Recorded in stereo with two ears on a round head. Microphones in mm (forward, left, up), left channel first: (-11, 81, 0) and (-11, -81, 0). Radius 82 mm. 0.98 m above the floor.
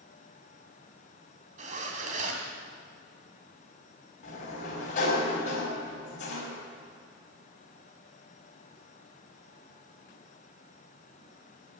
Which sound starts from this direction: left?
A sliding door, at 4.2 s.